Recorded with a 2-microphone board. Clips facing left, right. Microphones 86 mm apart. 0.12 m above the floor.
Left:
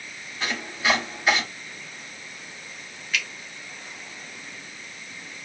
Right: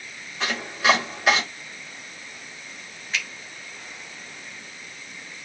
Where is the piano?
No piano in this recording.